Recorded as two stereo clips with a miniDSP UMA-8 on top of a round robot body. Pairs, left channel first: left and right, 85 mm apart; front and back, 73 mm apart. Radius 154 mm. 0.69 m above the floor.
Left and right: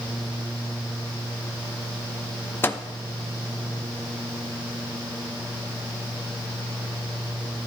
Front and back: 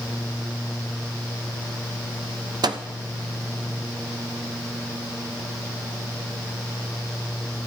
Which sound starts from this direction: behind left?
A microwave, at 2.6 s.